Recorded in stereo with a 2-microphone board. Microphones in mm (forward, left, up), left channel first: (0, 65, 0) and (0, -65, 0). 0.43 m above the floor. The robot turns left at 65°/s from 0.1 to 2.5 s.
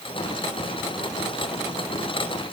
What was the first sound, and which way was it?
Only background noise.